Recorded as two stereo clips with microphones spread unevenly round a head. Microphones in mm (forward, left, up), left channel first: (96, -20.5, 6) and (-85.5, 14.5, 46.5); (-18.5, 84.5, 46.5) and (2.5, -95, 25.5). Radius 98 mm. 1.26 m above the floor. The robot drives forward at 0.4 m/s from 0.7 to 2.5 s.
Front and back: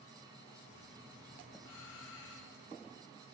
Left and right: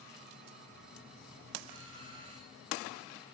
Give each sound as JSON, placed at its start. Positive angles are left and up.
{"t": 1.6, "sound": "a doorbell", "azimuth_deg": -20, "distance_m": 10.0}